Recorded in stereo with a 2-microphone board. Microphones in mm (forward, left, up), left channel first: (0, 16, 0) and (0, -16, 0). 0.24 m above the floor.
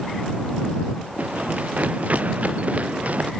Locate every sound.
1.2 s running footsteps: 60° right (ahead or behind); by 3.3 s 50° right (ahead or behind)